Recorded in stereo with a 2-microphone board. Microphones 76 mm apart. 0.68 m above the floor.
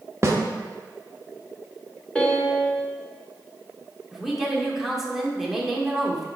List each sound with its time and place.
0.2 s a snare drum: 35° right (ahead or behind), 0.8 m
2.1 s a piano: 10° left (ahead or behind), 1.0 m
4.1 s a woman speaking: 5° right (ahead or behind), 1.3 m